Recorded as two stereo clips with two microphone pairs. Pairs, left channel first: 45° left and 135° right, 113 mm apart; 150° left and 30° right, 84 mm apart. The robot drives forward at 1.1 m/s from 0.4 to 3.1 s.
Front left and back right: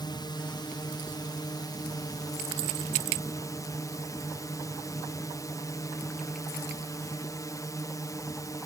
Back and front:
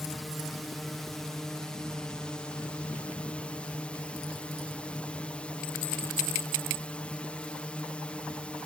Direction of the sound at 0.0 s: 60° left.